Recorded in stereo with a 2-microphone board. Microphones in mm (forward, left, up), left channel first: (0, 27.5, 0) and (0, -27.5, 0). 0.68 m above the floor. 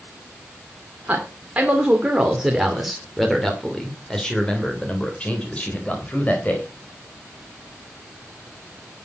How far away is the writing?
I don't hear writing.